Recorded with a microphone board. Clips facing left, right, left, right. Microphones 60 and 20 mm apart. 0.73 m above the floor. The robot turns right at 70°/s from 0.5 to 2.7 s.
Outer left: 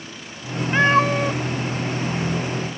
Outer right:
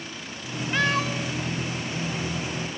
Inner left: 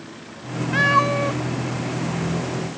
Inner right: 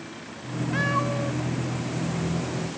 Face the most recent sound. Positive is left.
turn(degrees=15)  # may be behind; listen again after turning